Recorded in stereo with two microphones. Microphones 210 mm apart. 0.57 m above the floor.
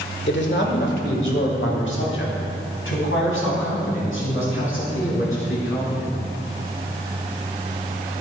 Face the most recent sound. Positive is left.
turn(degrees=75)  # may be behind; listen again after turning